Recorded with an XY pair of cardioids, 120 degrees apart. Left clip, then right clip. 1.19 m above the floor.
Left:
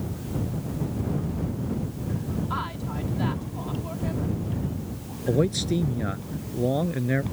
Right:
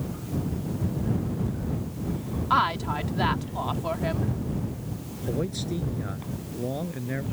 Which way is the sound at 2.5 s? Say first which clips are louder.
Right 11 dB; 55° right.